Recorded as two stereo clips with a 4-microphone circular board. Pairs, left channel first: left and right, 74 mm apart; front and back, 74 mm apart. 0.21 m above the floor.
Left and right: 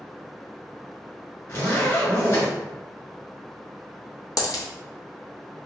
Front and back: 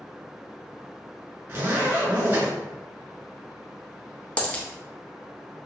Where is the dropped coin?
70° left, 0.6 m.